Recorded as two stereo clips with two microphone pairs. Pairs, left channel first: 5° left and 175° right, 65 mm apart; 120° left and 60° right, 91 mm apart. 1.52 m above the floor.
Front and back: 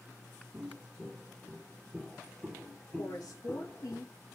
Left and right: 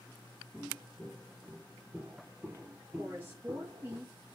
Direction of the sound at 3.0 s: 5° left.